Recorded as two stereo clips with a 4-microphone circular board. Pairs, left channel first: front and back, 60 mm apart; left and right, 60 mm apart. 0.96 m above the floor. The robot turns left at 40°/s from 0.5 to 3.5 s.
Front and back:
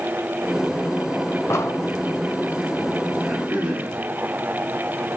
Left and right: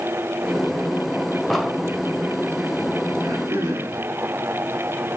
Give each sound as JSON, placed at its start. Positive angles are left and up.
{"t": 1.5, "sound": "an explosion", "azimuth_deg": 5, "distance_m": 1.0}
{"t": 3.2, "sound": "throat clearing", "azimuth_deg": -95, "distance_m": 5.0}